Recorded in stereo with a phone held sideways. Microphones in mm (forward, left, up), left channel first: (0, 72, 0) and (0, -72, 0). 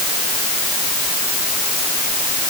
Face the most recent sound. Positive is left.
No sound to turn to.